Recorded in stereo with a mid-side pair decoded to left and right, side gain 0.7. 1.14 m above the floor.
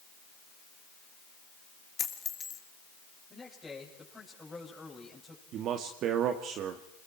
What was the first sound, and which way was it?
A dropped coin, 25° left.